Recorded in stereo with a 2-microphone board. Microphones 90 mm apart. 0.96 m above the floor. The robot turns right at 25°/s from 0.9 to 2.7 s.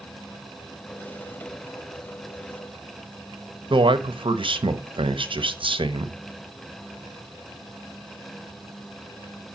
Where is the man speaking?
70° right (ahead or behind), 0.8 m.